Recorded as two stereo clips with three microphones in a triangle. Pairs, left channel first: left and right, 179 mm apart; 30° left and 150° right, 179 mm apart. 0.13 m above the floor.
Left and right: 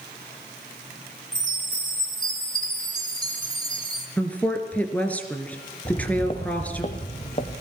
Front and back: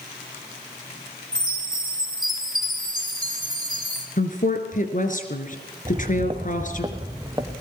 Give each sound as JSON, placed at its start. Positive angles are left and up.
{"t": 1.3, "sound": "a chime", "azimuth_deg": 175, "distance_m": 4.0}
{"t": 4.2, "sound": "a woman speaking", "azimuth_deg": 10, "distance_m": 2.5}
{"t": 5.8, "sound": "footsteps", "azimuth_deg": 155, "distance_m": 1.2}